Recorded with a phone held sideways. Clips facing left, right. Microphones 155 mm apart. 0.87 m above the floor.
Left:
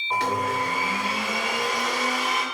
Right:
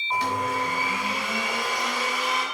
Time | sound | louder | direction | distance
0.1 | a blender | left 1 dB | 80° left | 3 m